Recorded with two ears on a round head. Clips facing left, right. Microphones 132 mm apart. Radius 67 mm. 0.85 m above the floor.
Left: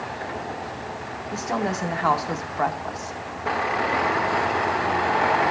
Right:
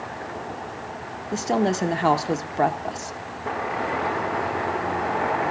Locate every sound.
1.3 s a woman speaking: 30° right (ahead or behind), 0.7 m